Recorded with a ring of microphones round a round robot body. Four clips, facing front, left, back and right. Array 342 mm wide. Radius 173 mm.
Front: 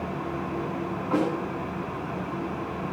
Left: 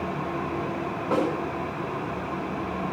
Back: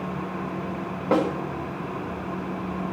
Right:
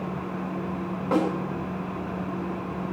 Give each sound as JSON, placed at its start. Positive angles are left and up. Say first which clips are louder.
{"t": 1.1, "sound": "a snare drum", "louder": "right 1 dB, back 3 dB", "azimuth_deg": 175, "distance_m": 5.5}